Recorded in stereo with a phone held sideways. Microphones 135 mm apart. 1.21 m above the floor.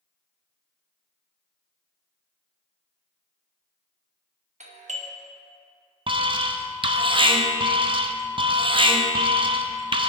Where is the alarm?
40° right (ahead or behind), 0.5 m.